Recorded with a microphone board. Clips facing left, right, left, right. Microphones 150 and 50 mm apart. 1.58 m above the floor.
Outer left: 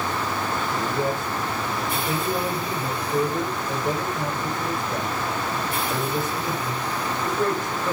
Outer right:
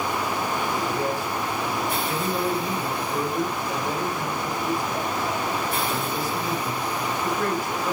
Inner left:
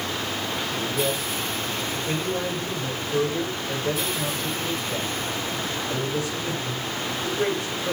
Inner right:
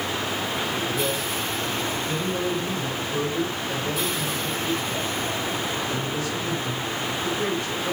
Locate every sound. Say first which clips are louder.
0.7 s a man speaking: outer left 1 dB, even; 20° left (ahead or behind), 7.5 m